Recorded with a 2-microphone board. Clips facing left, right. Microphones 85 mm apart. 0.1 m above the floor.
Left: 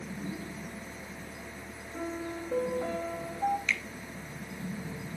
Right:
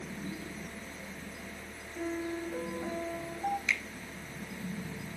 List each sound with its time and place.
1.9 s a piano: 70° left (ahead or behind), 5.5 m
3.7 s a finger snap: 15° right (ahead or behind), 1.3 m